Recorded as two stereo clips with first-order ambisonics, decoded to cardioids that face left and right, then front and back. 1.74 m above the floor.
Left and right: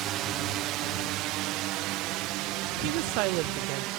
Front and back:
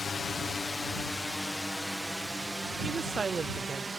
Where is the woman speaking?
110° right.